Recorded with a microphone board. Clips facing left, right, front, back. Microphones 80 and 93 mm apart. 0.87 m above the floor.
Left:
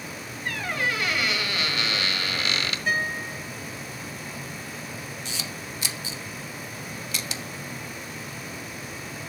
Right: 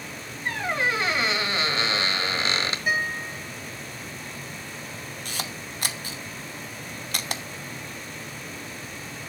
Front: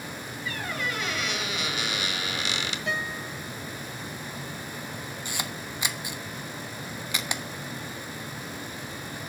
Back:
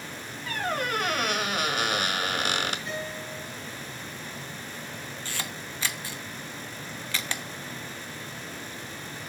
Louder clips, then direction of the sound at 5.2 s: Right 1 dB, front 2 dB; 70° right.